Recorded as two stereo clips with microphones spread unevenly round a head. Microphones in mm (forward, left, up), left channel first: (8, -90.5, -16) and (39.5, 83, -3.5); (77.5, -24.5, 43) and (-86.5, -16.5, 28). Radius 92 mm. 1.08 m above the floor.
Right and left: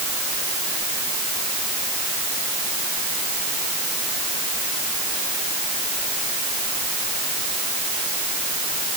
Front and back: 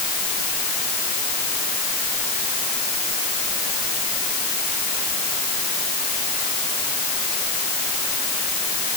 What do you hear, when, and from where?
Only background noise.